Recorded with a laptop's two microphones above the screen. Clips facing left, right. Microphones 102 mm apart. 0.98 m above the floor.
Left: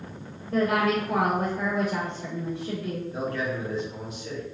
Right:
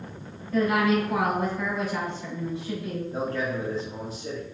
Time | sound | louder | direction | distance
0.5 | a woman speaking | right 1 dB | 60° left (ahead or behind) | 1.9 m
3.1 | a man speaking | right 2 dB | 40° right (ahead or behind) | 1.8 m